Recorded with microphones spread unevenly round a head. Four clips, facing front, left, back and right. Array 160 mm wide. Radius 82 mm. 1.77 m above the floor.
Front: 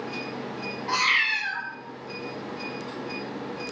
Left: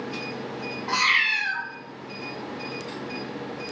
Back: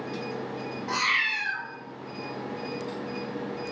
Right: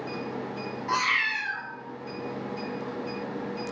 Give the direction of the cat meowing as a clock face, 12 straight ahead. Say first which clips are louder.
Left 2 dB, front 3 dB; 9 o'clock.